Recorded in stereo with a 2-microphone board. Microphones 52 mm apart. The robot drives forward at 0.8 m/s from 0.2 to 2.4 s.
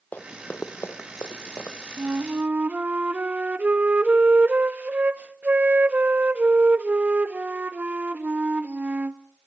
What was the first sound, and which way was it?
Running footsteps, 35° left (ahead or behind).